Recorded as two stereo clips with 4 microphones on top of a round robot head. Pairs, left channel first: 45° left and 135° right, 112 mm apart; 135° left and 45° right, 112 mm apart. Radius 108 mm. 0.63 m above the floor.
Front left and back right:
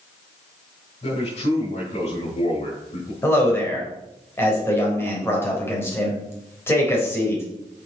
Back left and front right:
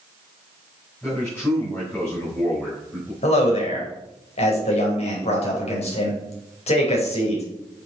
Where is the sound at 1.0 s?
60° left, 4.5 m.